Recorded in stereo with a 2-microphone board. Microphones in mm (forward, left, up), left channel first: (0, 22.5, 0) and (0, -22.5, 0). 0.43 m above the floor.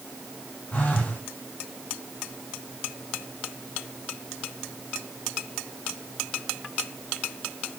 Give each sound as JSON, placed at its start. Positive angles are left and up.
{"t": 0.7, "sound": "a phone buzzing", "side_deg": 40, "distance_m": 2.0}